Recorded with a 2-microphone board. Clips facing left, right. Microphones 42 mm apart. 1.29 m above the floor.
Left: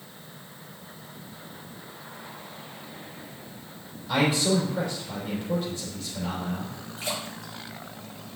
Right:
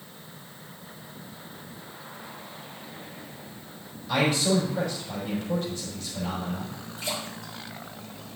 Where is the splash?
55° left (ahead or behind), 3.5 m.